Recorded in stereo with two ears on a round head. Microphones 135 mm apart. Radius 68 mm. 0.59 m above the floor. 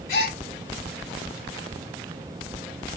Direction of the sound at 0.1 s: 60° left (ahead or behind).